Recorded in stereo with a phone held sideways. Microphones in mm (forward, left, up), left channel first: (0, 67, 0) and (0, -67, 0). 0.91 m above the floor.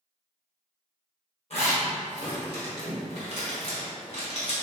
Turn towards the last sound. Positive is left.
turn(degrees=55)  # may be behind; listen again after turning